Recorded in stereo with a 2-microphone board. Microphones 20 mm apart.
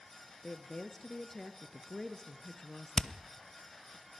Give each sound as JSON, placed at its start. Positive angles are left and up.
{"t": 0.4, "sound": "a woman speaking", "side_deg": 25, "distance_m": 1.6}
{"t": 3.0, "sound": "hammering", "side_deg": 35, "distance_m": 0.7}